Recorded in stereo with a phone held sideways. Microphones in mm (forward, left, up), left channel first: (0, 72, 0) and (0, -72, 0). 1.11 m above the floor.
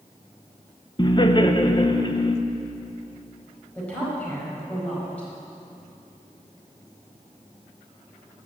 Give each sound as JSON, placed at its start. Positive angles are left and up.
{"t": 1.0, "sound": "laughter", "side_deg": 35, "distance_m": 0.9}
{"t": 3.8, "sound": "a woman speaking", "side_deg": 10, "distance_m": 5.0}